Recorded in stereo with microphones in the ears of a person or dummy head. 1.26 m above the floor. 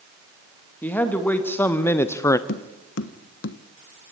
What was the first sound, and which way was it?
A man speaking, 10° left (ahead or behind).